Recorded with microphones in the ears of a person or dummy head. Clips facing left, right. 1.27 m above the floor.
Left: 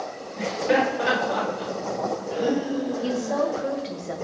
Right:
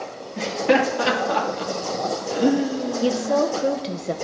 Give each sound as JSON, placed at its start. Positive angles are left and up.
{"t": 0.4, "sound": "laughter", "side_deg": -65, "distance_m": 2.5}
{"t": 3.0, "sound": "a woman speaking", "side_deg": -50, "distance_m": 1.1}